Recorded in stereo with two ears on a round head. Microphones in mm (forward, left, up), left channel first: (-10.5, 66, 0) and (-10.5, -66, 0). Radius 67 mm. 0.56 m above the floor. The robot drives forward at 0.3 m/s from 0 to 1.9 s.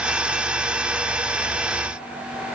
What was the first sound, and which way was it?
Only background noise.